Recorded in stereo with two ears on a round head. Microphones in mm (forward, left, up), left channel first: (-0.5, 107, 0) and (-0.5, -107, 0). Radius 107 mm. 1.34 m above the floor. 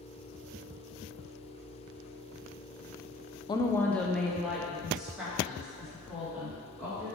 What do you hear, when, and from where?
3.5 s a woman speaking: 20° left (ahead or behind), 0.5 m; by 7.0 s 5° right (ahead or behind), 4 m